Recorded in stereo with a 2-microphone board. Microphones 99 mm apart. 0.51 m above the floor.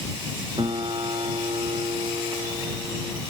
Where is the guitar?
55° right (ahead or behind).